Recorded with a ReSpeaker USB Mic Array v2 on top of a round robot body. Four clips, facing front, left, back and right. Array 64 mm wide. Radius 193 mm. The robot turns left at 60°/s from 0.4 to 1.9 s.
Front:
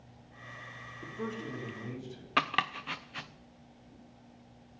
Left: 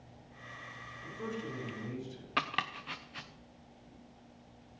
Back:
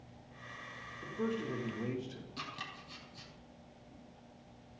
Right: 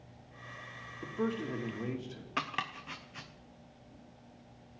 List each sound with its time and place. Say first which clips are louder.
1.0 s a man speaking: right 6 dB, back 2 dB; 80° right, 2.5 m; by 2.3 s 135° right, 2.5 m
2.4 s chopping: left 2 dB, front 17 dB; 10° left, 0.5 m